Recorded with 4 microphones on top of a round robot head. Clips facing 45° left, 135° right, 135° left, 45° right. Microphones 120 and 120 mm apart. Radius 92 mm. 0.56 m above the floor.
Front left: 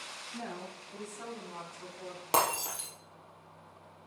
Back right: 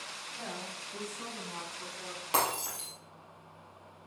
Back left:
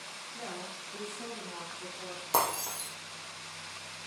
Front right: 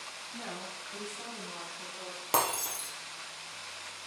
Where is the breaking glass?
10° right, 3 m.